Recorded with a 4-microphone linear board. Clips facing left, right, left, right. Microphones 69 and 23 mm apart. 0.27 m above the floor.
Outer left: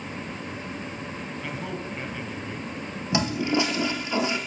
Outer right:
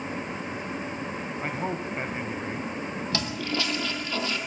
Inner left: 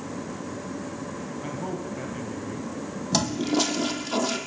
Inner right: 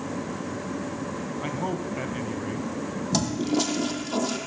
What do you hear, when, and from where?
1.4 s a man speaking: 35° right (ahead or behind), 2.5 m
3.1 s a toilet flushing: 20° left (ahead or behind), 2.5 m